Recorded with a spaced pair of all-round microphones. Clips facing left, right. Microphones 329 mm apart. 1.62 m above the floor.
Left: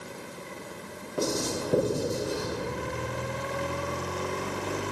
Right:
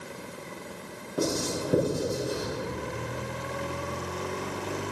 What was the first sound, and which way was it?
Writing, 5° right (ahead or behind).